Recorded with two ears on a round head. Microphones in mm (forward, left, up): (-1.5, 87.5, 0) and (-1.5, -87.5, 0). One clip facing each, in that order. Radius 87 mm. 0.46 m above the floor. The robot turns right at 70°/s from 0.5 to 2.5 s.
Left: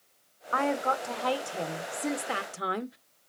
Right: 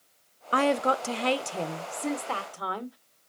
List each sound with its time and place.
0.5 s a woman speaking: 100° right, 1.0 m; by 3.0 s 35° left, 1.0 m